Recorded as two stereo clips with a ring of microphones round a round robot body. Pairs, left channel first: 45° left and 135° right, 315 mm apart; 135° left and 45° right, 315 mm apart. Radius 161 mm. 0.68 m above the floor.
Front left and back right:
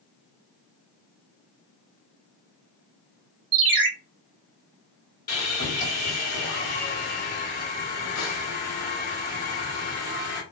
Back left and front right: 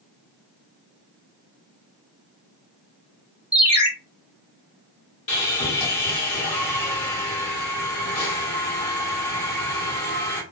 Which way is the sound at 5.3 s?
90° left.